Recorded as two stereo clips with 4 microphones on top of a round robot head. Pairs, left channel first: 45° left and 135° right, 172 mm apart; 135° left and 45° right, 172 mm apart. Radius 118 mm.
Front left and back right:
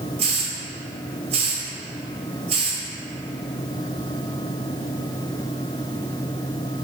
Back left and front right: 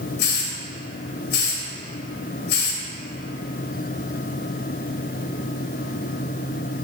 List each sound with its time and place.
0.2 s a hiss: 165° left, 0.9 m